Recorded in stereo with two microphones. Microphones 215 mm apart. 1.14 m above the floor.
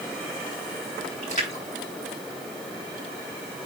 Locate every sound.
1.2 s a splash: 35° left (ahead or behind), 4 m